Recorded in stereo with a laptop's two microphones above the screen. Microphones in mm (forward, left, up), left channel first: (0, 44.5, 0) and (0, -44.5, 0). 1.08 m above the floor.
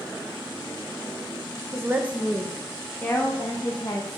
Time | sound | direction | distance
1.7 | a woman speaking | 30° right (ahead or behind) | 0.8 m